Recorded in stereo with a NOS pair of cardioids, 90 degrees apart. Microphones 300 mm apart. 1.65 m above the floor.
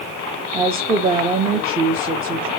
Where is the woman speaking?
20° right, 0.9 m.